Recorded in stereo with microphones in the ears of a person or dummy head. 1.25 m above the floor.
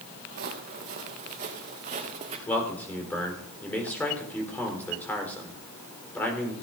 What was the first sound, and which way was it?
Footsteps, 50° right (ahead or behind).